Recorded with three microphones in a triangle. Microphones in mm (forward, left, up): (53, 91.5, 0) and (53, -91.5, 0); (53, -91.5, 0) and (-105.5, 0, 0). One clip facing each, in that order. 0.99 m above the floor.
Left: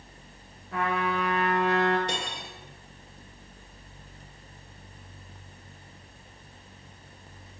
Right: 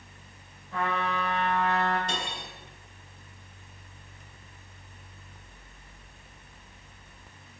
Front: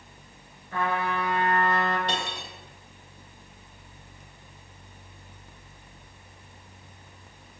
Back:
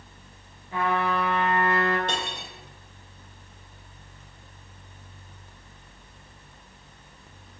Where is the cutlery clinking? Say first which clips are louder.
Left 1 dB, even; 110° left, 1.7 m.